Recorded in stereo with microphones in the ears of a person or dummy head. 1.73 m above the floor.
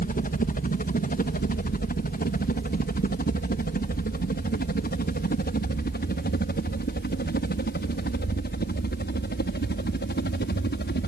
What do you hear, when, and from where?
0.0 s a helicopter: 40° left (ahead or behind); by 11.1 s 50° left (ahead or behind)